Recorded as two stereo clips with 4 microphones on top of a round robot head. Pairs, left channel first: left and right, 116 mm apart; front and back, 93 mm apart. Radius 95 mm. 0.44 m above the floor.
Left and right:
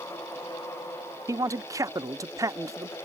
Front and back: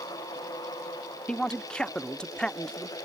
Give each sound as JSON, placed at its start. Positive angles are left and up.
{"t": 1.3, "sound": "a man speaking", "azimuth_deg": -70}